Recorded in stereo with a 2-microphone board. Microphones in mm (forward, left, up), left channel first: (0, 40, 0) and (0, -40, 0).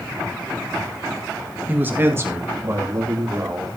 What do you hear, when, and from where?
1.7 s a man speaking: 20° right (ahead or behind), 1.7 m; by 3.8 s 45° right (ahead or behind), 4 m